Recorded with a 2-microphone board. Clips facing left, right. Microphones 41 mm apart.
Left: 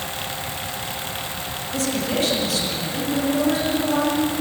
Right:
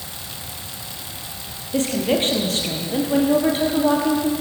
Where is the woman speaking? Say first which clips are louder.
Right 4 dB; 35° right (ahead or behind), 7 m; by 4.3 s 50° right (ahead or behind), 6 m.